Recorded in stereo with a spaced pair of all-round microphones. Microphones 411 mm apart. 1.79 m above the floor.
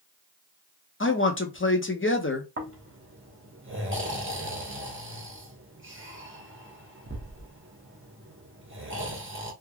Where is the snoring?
30° right (ahead or behind), 0.7 m.